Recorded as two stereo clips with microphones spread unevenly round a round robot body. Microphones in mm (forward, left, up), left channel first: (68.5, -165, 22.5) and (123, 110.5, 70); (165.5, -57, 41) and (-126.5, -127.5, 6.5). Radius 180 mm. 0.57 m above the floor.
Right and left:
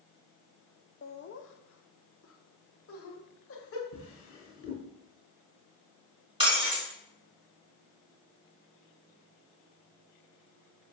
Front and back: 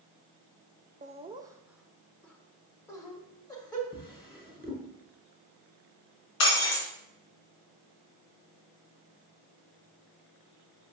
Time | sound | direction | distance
1.0 | laughter | 125° right | 0.7 m
3.9 | a drawer | 60° right | 3 m
6.4 | breaking glass | 5° left | 3.5 m